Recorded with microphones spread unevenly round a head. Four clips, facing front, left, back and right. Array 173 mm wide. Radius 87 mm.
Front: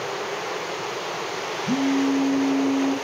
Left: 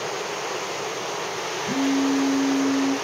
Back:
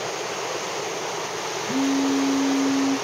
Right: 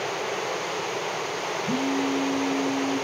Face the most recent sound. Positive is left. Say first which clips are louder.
# left 5 dB, front 1 dB
turn(degrees=10)